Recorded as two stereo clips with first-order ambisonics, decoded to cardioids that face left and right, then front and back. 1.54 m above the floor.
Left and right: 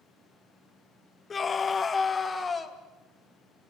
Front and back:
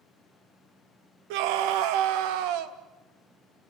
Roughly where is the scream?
Behind.